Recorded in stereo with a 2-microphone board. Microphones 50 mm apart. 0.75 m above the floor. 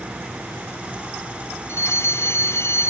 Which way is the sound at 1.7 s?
55° left (ahead or behind).